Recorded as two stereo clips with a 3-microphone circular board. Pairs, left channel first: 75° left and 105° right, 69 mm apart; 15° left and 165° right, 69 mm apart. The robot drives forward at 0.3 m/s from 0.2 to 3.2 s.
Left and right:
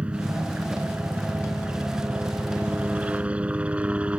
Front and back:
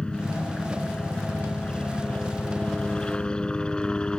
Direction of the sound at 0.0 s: 45° right.